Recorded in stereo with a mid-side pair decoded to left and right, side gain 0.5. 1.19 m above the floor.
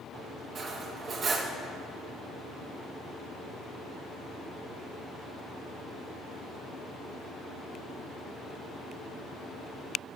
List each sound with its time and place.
0.6 s cutlery clinking: 45° right, 0.9 m